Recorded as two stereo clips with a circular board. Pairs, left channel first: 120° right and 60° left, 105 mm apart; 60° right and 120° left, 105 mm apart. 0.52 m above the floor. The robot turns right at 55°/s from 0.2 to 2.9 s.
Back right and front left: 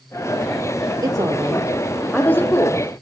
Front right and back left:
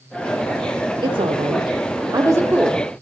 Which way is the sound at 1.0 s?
100° left.